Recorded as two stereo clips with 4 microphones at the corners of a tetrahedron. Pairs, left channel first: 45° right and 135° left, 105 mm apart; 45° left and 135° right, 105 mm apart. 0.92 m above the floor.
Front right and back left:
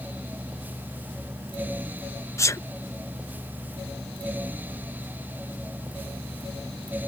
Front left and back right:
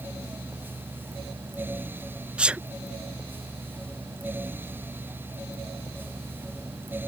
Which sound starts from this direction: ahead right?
A sneeze, at 2.4 s.